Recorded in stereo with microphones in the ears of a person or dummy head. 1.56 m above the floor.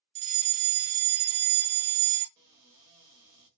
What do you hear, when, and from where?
0.1 s a fire alarm: 30° right (ahead or behind), 0.7 m
2.4 s a cupboard door: 20° right (ahead or behind), 1.2 m